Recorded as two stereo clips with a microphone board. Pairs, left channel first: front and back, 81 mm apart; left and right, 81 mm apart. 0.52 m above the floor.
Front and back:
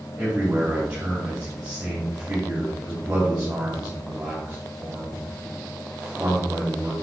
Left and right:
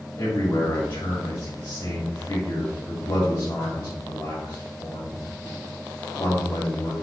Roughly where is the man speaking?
Left.